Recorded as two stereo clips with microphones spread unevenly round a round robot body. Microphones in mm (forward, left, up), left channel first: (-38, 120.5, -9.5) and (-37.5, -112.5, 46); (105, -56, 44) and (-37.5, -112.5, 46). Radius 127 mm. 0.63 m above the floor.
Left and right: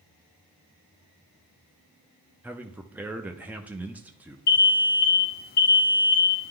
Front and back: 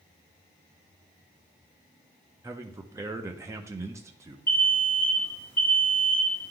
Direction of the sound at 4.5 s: 95° left.